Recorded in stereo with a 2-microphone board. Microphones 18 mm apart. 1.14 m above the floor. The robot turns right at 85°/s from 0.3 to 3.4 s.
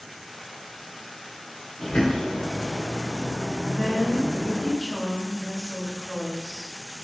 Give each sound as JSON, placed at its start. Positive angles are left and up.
{"t": 1.8, "sound": "a bird", "azimuth_deg": 65, "distance_m": 3.0}
{"t": 3.7, "sound": "a woman speaking", "side_deg": 10, "distance_m": 2.5}